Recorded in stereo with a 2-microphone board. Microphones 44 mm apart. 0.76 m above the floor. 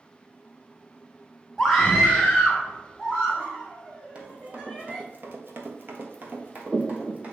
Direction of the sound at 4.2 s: 30° right (ahead or behind).